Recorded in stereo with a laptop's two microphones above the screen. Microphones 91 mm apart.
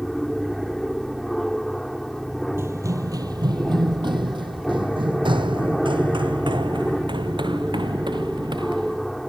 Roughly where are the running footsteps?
Right.